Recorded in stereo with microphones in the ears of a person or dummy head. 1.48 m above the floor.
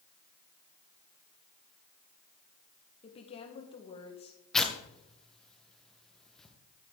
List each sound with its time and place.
3.0 s a woman speaking: 35° left (ahead or behind), 1.5 m
4.5 s tearing paper: centre (ahead or behind), 1.2 m